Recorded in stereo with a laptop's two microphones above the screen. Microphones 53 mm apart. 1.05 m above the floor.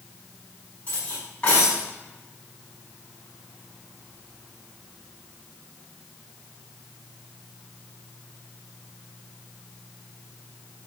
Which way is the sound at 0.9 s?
25° left (ahead or behind).